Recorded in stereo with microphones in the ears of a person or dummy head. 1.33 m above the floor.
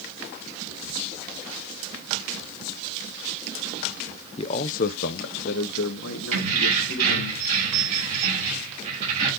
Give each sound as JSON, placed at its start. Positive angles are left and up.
{"t": 4.4, "sound": "a man speaking", "side_deg": 35, "distance_m": 0.5}
{"t": 6.3, "sound": "keys jangling", "side_deg": -40, "distance_m": 6.0}